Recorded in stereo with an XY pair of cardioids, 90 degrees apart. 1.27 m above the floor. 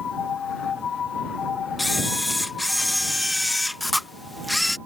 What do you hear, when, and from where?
1.8 s a camera shutter: 5° left